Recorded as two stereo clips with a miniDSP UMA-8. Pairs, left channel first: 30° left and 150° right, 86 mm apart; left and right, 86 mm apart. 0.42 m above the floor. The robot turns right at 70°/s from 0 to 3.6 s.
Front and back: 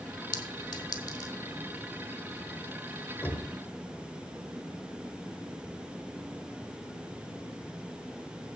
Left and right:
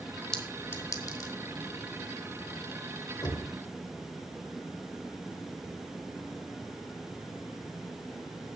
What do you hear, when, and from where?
0.3 s a clink: 5° left, 1.3 m; by 1.3 s 75° left, 1.3 m
3.2 s knocking: 85° left, 1.5 m; by 3.5 s 105° left, 1.5 m